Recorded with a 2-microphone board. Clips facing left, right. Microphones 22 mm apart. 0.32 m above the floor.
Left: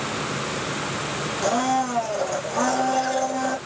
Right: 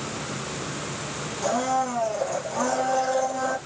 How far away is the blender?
About 1.4 m.